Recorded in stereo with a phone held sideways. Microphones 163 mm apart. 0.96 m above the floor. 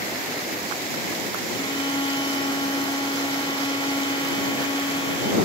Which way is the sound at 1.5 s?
30° left (ahead or behind).